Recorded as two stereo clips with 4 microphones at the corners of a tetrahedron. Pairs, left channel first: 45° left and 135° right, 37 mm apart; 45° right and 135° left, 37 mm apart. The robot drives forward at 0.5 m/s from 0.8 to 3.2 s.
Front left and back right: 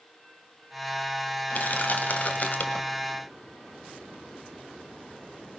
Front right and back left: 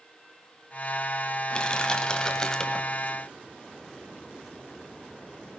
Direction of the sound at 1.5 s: 15° left.